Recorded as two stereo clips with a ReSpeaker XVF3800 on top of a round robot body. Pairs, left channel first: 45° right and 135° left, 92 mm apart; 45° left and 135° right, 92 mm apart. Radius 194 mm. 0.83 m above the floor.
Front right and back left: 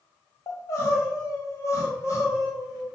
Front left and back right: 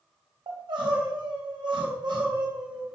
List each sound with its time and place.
0.5 s crying: 100° right, 4.5 m